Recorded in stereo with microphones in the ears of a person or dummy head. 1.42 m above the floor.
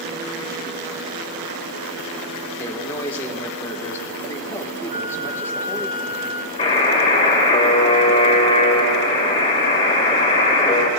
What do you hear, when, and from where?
2.6 s a man speaking: 15° left (ahead or behind), 1.4 m
4.9 s a flute: 55° left (ahead or behind), 1.3 m
6.6 s a buzzer: 35° left (ahead or behind), 2 m